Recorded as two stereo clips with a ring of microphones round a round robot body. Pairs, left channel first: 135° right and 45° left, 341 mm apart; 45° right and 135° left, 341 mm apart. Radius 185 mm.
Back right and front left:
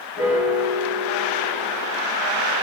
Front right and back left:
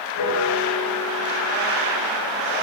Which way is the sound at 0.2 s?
35° right.